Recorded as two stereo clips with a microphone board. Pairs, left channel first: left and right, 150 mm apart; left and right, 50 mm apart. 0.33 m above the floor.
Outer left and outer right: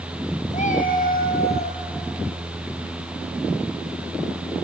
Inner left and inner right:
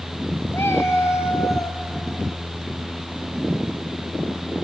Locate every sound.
0.5 s a cat meowing: 50° left (ahead or behind), 1.8 m; by 1.8 s 80° left, 2.5 m